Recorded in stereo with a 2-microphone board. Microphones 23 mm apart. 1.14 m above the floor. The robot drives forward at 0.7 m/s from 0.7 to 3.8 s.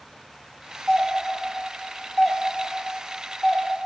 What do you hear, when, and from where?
0.9 s a doorbell: centre (ahead or behind), 1.3 m; by 3.7 s 5° left (ahead or behind), 0.9 m